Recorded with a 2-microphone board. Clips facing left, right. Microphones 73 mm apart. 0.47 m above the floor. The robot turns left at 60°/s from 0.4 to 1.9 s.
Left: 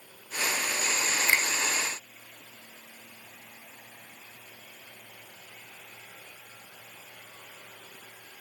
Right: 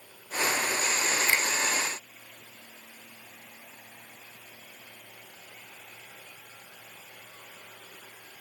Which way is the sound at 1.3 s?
25° left (ahead or behind).